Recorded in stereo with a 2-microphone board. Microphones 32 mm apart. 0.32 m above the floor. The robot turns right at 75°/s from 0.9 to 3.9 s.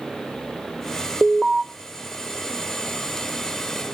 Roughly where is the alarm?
Centre.